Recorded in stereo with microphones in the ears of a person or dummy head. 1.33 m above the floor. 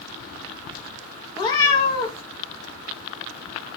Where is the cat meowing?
20° left (ahead or behind), 0.8 m.